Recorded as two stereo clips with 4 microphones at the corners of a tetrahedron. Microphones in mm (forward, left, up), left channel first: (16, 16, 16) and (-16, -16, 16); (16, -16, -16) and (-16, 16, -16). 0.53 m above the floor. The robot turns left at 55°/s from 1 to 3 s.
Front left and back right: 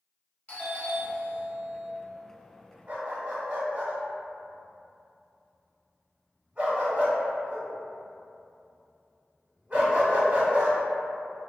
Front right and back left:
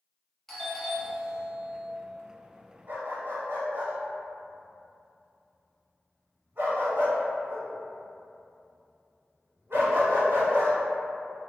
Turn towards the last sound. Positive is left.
turn(degrees=165)